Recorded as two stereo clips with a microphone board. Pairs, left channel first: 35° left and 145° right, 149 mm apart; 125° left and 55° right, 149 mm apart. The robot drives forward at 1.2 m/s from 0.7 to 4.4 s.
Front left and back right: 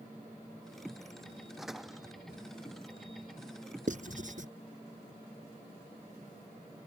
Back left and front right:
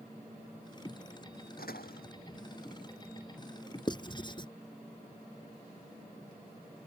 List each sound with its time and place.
1.6 s a door slam: 125° left; by 2.1 s 130° left
3.9 s writing: 175° right